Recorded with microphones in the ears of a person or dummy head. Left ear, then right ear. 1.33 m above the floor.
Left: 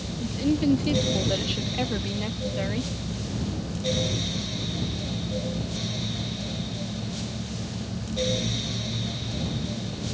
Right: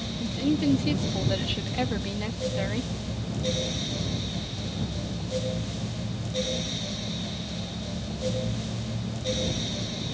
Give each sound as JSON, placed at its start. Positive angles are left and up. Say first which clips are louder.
{"t": 0.2, "sound": "a woman speaking", "louder": "left 1 dB", "side_deg": -10}